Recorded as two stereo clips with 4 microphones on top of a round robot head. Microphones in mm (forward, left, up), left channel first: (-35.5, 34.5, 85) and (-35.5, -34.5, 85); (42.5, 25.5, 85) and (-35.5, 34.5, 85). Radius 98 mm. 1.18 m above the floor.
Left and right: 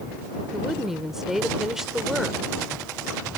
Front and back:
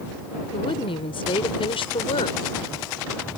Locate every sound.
0.5 s a woman speaking: 5° right